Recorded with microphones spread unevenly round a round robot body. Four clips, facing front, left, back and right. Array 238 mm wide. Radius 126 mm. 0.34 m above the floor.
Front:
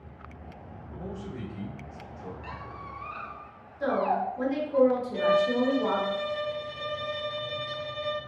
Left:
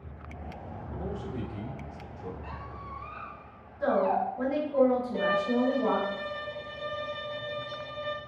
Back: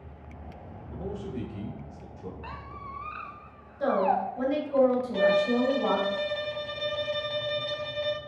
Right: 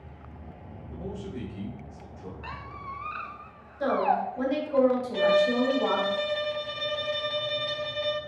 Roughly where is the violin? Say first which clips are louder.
Right 4 dB, back 1 dB; right.